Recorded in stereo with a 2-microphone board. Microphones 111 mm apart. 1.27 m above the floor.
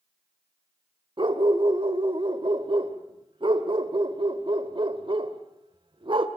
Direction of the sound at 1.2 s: 50° right (ahead or behind).